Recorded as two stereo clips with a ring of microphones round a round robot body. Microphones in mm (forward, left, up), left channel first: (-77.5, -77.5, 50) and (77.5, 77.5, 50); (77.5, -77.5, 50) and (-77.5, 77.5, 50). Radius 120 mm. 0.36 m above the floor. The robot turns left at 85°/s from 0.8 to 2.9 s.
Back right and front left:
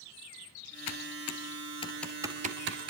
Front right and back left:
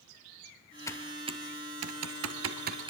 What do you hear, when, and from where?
0.9 s typing on a keyboard: 120° right, 1.7 m; by 2.9 s 65° left, 1.7 m